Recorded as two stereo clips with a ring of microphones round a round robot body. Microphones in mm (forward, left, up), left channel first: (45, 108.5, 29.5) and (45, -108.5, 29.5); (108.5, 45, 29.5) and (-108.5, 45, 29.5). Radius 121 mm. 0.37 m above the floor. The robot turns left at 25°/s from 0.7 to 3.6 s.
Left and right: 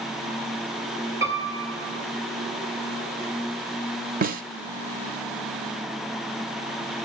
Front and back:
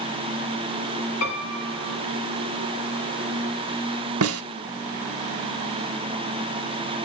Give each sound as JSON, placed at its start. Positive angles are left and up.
{"t": 1.2, "sound": "a piano", "azimuth_deg": -15, "distance_m": 4.0}
{"t": 4.2, "sound": "a snare drum", "azimuth_deg": -145, "distance_m": 0.8}